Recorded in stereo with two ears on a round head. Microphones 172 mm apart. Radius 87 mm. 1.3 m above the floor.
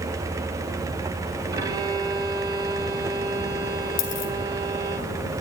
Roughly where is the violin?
Centre.